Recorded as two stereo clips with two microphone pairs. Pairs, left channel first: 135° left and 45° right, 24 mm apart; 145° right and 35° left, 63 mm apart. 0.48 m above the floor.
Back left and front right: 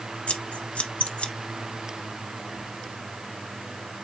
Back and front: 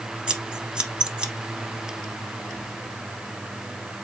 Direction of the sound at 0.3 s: 110° left.